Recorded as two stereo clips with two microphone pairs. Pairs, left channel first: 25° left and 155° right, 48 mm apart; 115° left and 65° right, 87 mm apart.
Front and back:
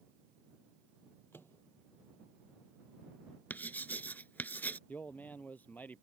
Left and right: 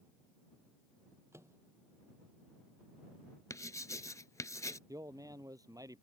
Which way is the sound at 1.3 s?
10° right.